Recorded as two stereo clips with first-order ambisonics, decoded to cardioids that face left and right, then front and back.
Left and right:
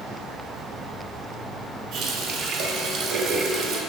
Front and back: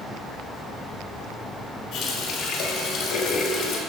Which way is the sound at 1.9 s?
50° right.